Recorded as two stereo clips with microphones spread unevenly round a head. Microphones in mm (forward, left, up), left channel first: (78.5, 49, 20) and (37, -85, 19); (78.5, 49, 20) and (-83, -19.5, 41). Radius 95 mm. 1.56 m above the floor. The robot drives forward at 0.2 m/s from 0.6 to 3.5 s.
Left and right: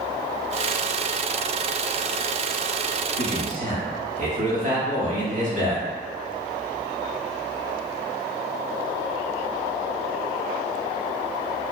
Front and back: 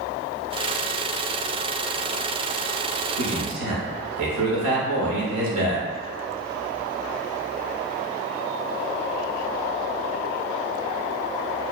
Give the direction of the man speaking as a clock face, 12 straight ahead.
5 o'clock.